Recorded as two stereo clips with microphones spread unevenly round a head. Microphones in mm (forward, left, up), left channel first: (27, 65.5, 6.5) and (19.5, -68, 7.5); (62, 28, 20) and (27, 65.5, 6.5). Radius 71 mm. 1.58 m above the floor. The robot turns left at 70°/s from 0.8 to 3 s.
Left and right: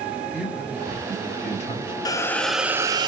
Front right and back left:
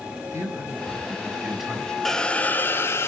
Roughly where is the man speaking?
Left.